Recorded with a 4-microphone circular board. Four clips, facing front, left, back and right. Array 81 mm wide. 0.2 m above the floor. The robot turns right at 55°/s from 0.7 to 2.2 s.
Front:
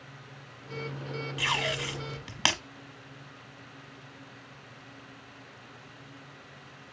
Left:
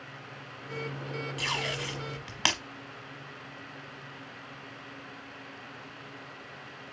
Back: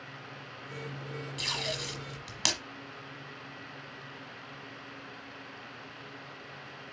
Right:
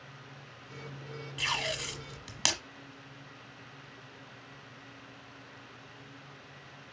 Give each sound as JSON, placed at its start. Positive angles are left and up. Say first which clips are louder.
{"t": 1.4, "sound": "tape being pulled", "louder": "right 1 dB, front 7 dB", "azimuth_deg": -10, "distance_m": 1.1}